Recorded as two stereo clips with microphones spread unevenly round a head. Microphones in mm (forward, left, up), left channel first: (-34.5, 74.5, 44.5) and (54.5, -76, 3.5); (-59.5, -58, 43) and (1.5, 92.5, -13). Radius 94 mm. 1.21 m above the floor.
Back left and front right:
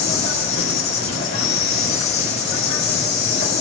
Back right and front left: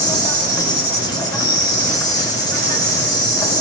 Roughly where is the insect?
Behind.